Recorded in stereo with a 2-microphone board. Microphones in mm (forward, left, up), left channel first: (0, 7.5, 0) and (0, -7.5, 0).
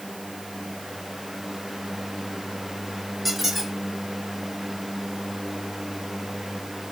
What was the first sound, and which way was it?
A squeak, 10° right (ahead or behind).